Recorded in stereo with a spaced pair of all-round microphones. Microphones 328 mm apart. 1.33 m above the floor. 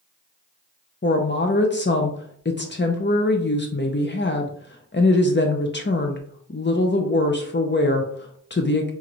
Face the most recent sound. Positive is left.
turn(degrees=35)  # may be behind; listen again after turning